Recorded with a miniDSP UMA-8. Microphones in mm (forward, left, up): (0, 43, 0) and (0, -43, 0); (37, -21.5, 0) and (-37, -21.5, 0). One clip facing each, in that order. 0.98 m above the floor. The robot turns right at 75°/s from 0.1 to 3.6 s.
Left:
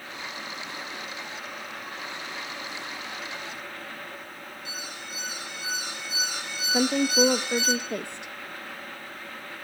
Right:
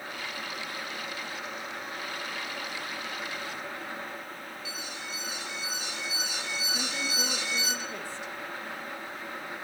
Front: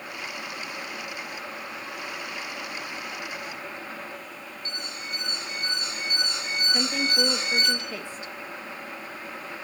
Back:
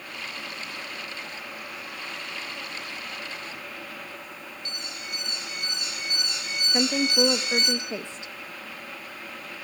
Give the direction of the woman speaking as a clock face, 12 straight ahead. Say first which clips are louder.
Left 16 dB, back 5 dB; 8 o'clock.